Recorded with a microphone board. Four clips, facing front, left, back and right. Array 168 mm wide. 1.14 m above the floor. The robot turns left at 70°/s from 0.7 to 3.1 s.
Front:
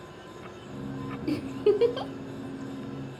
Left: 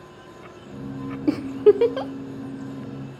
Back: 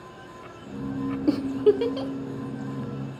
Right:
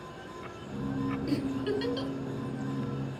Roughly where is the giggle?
Behind left.